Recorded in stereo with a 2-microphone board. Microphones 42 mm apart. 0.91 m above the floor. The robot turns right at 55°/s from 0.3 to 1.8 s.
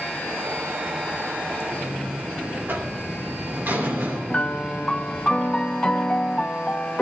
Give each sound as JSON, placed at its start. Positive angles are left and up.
{"t": 1.7, "sound": "a buzzer", "side_deg": -55, "distance_m": 2.5}
{"t": 4.3, "sound": "a piano", "side_deg": 25, "distance_m": 0.6}